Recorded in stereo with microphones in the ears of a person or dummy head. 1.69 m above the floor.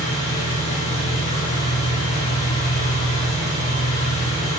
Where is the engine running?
30° left (ahead or behind), 1.7 m.